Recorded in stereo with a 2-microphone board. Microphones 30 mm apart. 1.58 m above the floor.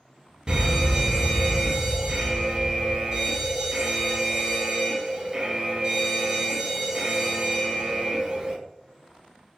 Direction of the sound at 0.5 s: 30° right (ahead or behind).